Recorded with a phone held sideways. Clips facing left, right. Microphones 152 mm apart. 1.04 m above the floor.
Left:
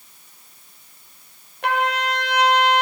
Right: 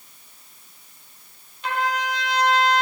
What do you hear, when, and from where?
1.6 s a trumpet: 65° left (ahead or behind), 4.5 m